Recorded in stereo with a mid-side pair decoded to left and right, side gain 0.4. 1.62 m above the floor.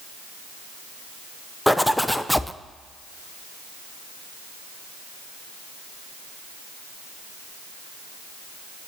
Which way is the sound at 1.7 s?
5° left.